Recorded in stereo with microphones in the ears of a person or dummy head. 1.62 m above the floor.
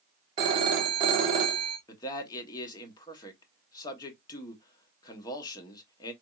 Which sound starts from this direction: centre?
A man speaking, at 1.9 s.